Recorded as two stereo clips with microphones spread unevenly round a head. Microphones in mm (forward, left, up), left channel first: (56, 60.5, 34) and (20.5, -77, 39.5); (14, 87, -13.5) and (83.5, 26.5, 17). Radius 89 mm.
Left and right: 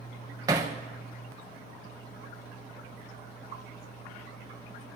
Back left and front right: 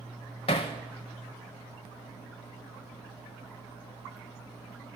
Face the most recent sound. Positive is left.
turn(degrees=-170)